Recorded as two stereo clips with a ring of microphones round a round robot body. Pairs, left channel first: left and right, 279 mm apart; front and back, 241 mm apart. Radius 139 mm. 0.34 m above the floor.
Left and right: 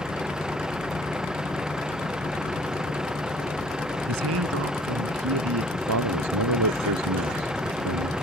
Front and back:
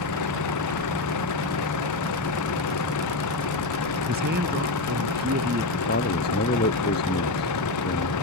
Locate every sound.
0.0 s a vehicle: straight ahead
4.1 s a man speaking: 125° right
5.7 s a man speaking: 55° right